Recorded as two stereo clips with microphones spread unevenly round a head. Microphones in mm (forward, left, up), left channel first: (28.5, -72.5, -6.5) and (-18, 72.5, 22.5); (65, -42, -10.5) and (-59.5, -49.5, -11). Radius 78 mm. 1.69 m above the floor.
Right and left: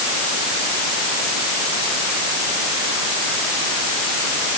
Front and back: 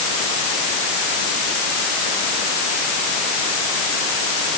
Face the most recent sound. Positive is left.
No sound to turn to.